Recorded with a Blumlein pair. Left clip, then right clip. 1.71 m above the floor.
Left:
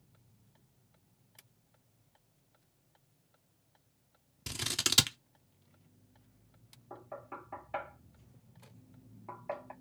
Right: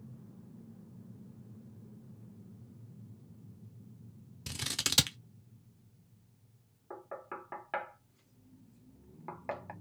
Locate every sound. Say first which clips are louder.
4.5 s scissors: left 1 dB; straight ahead, 0.6 m
6.9 s knocking: right 2 dB; 45° right, 1.5 m